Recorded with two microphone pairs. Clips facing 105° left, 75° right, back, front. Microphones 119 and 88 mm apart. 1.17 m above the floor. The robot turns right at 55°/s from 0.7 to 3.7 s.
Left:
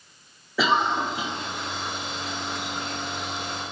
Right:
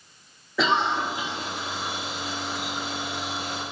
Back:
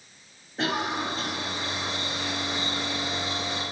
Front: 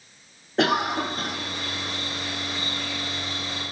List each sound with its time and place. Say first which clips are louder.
0.6 s a cough: left 1 dB, front 5 dB; 15° left, 0.7 m; by 1.4 s 50° left, 0.7 m